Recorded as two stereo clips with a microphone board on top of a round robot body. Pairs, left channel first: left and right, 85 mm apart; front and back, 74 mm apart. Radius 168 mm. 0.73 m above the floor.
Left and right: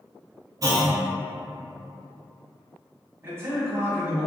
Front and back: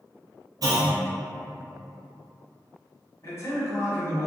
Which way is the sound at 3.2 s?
35° right.